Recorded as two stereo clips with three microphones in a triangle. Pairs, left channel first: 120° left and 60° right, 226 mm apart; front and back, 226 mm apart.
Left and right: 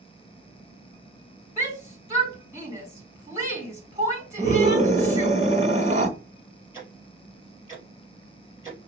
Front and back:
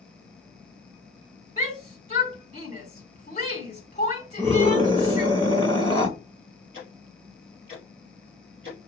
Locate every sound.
1.6 s a shout: 5° left, 1.7 m
4.4 s a scream: 50° right, 1.2 m
6.7 s ticking: 50° left, 4 m